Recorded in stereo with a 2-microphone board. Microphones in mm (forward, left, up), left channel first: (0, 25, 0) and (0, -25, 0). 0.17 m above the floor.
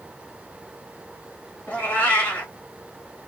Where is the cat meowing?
25° left (ahead or behind), 1.8 m.